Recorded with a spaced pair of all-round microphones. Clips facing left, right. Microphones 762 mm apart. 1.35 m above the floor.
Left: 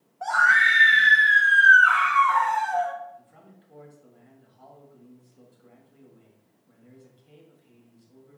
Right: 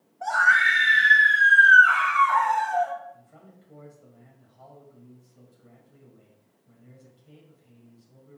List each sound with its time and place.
0.2 s a scream: 45° left (ahead or behind), 1.1 m
3.1 s a man speaking: 85° right, 2.5 m